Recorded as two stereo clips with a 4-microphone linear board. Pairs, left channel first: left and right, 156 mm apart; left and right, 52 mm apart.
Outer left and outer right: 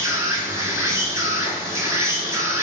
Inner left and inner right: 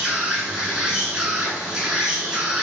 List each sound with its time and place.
0.0 s an insect: 15° right (ahead or behind), 1.1 m